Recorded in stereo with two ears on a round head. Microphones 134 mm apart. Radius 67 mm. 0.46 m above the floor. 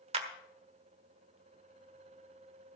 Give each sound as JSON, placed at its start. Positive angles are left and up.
{"t": 0.1, "sound": "a clap", "side_deg": -40, "distance_m": 1.4}